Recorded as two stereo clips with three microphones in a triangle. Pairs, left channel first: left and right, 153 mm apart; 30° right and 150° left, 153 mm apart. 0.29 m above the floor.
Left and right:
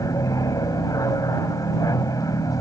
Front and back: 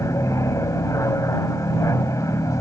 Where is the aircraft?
30° left.